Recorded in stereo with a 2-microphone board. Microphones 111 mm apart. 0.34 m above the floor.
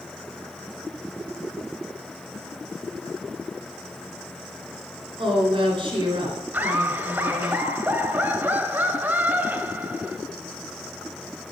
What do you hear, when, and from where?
5.2 s a woman speaking: 45° right (ahead or behind), 3 m
6.5 s laughter: 15° right (ahead or behind), 1.4 m